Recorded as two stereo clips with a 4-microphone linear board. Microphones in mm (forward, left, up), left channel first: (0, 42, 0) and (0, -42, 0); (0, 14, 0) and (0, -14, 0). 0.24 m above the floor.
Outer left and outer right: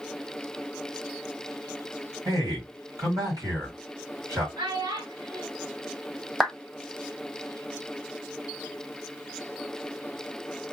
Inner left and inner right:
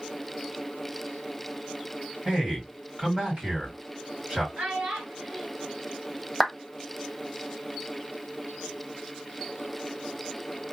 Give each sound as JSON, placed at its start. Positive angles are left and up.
{"t": 2.2, "sound": "a man speaking", "side_deg": -45, "distance_m": 1.9}
{"t": 4.6, "sound": "a child speaking", "side_deg": -60, "distance_m": 1.7}
{"t": 6.4, "sound": "a clap", "side_deg": -5, "distance_m": 0.7}